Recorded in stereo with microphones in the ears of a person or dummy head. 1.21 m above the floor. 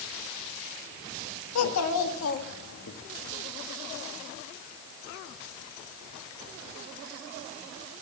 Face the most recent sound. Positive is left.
turn(degrees=75)  # may be behind; listen again after turning